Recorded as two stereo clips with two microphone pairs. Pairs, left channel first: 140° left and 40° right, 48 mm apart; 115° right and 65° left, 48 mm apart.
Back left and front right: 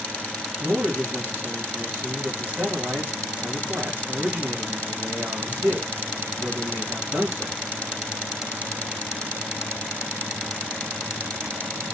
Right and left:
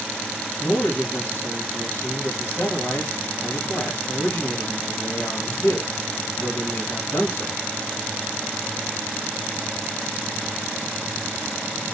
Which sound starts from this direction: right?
A man speaking, at 0.6 s.